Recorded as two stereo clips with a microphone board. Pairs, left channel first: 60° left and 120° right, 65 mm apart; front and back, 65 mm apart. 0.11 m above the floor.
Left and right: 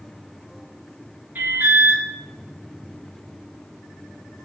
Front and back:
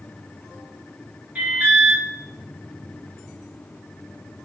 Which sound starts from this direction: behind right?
An alarm, at 1.4 s.